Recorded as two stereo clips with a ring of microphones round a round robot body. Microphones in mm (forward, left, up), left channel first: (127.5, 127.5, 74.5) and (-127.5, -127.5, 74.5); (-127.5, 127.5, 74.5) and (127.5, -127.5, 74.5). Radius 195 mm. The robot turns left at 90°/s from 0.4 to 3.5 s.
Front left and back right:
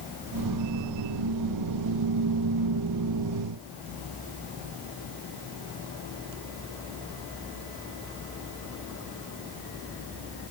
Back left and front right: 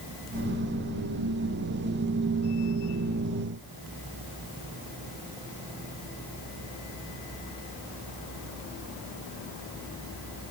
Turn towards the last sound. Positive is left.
No sound to turn to.